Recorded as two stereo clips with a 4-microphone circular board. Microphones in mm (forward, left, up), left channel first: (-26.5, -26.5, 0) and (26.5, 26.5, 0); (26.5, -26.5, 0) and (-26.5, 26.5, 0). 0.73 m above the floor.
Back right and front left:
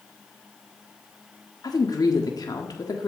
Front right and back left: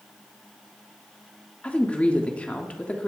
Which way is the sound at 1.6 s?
115° right.